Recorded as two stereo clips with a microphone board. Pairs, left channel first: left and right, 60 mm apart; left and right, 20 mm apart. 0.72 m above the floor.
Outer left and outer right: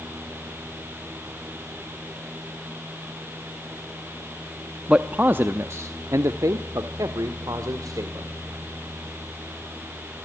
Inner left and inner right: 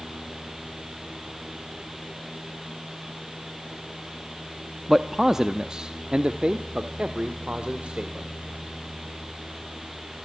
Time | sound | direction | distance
4.9 | a man speaking | 10° right (ahead or behind) | 0.9 m